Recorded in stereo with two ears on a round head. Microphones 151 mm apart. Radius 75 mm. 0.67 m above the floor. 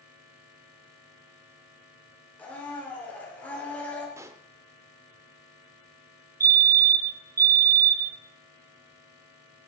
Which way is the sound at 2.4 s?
10° left (ahead or behind).